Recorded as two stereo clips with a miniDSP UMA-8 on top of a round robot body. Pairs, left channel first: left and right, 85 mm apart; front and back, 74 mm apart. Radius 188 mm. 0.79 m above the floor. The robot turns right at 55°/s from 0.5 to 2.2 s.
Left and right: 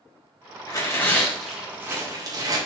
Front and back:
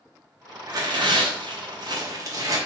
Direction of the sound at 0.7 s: 135° left.